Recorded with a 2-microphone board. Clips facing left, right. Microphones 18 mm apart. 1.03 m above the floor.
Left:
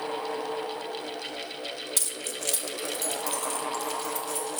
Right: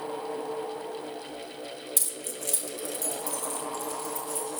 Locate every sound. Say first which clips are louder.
2.0 s keys jangling: even; 25° left (ahead or behind), 0.6 m; by 4.6 s 55° left (ahead or behind), 2 m